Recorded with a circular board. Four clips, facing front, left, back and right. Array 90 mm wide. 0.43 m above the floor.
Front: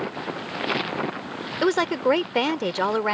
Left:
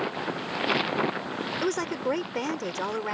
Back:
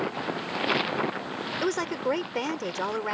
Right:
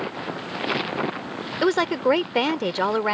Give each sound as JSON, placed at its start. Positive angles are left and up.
{"t": 1.6, "sound": "a woman speaking", "azimuth_deg": -50}